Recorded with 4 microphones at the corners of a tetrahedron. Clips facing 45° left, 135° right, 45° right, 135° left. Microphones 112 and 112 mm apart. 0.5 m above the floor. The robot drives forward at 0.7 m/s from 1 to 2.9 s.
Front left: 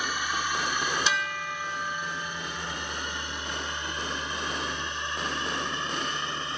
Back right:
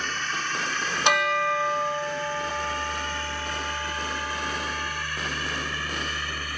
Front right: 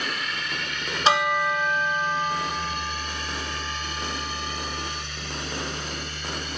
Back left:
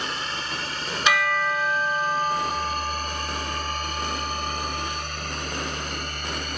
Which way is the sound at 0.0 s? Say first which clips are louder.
Front left 1 dB, back left 1 dB; 115° left.